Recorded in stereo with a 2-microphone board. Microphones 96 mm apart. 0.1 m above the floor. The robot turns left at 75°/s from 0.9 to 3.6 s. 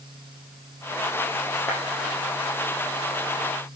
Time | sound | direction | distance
1.7 | a clap | 25° left (ahead or behind) | 5 m